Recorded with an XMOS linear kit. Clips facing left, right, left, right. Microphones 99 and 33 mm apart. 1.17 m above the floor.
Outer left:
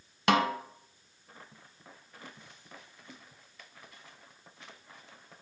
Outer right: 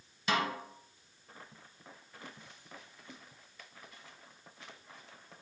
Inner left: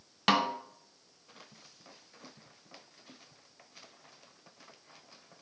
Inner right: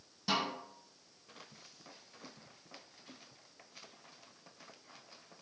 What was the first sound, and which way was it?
A snare drum, 65° left (ahead or behind).